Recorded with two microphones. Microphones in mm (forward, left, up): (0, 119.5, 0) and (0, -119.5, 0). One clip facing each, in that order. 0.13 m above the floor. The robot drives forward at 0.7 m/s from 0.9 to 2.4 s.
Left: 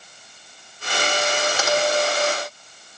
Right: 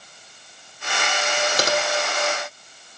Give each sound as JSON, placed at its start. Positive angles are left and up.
{"t": 1.6, "sound": "typing on a keyboard", "side_deg": -40, "distance_m": 3.0}